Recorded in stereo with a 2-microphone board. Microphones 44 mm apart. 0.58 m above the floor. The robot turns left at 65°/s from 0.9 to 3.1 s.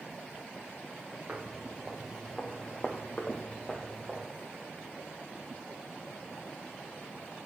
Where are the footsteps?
40° right (ahead or behind), 2.0 m; by 4.3 s 5° left (ahead or behind), 1.1 m.